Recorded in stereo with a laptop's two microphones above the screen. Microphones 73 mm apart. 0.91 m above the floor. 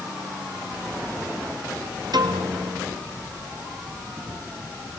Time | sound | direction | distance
2.1 | a piano | 65° right (ahead or behind) | 2.5 m